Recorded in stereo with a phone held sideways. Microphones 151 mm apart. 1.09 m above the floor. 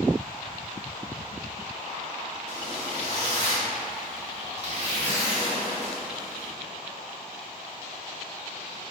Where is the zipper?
45° right (ahead or behind), 0.9 m.